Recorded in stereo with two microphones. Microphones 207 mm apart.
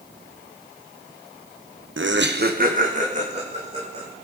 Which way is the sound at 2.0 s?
65° right (ahead or behind).